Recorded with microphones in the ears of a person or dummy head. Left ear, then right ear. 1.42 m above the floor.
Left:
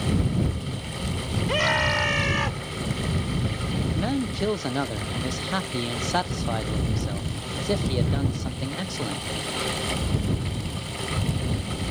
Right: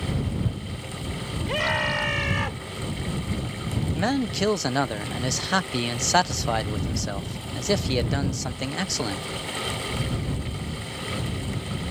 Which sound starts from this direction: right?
A man speaking, at 4.0 s.